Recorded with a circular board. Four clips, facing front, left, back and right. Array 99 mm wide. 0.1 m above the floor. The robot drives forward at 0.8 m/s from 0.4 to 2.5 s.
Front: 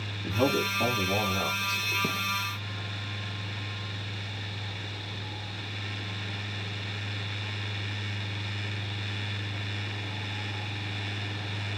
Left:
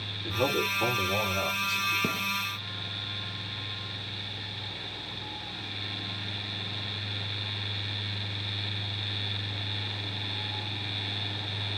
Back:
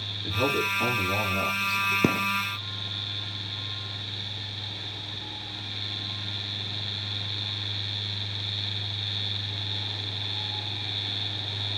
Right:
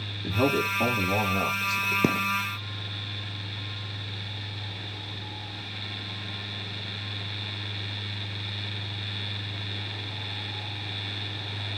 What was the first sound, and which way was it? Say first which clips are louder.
A man speaking: right 3 dB, front 1 dB; 65° right.